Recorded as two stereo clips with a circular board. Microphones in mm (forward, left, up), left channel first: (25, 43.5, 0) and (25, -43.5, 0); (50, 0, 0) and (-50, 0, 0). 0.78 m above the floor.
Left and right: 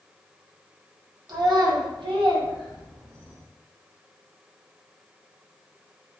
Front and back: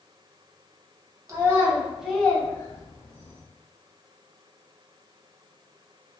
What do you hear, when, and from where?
1.3 s a child speaking: 125° right, 0.8 m; by 3.4 s 25° right, 0.8 m